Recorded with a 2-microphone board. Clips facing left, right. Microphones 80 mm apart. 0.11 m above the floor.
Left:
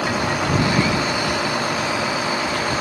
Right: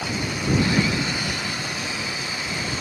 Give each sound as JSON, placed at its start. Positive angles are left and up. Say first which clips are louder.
{"t": 0.0, "sound": "a vehicle", "louder": "left 6 dB", "side_deg": 90}